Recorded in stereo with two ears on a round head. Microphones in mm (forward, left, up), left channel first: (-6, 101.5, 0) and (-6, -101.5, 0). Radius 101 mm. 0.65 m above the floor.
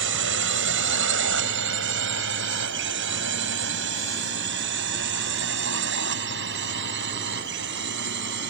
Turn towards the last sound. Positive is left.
turn(degrees=-55)  # may be behind; listen again after turning